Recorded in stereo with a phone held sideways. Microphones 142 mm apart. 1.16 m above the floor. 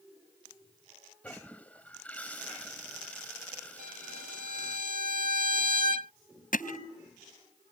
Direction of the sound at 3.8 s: 75° right (ahead or behind).